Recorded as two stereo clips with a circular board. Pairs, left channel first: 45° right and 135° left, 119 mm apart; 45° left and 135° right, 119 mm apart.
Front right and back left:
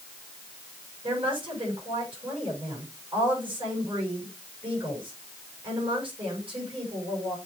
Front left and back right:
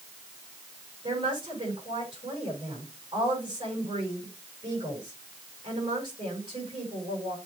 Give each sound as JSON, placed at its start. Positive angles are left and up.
{"t": 1.0, "sound": "a woman speaking", "azimuth_deg": 180, "distance_m": 6.0}